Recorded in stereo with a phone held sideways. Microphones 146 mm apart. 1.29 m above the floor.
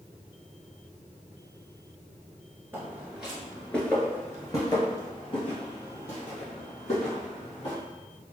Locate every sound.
2.7 s footsteps: 15° right (ahead or behind), 1.3 m; by 7.8 s 50° left (ahead or behind), 3 m